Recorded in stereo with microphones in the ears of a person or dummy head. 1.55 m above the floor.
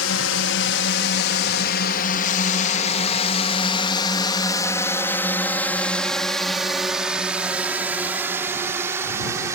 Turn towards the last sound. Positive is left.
turn(degrees=-15)  # may be behind; listen again after turning